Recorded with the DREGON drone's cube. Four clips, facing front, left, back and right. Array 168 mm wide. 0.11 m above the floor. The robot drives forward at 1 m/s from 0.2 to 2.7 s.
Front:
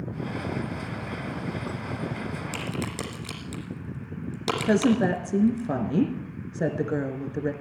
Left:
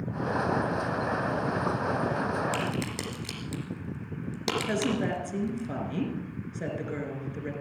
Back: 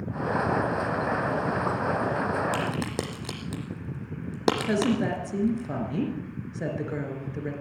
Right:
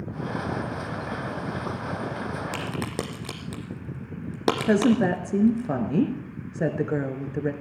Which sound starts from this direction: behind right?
A crack, at 2.5 s.